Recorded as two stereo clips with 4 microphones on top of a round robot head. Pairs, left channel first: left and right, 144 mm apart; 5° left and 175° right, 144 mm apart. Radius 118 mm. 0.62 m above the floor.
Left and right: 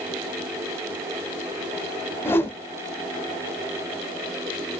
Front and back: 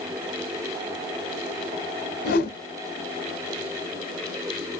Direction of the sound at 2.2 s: 15° left.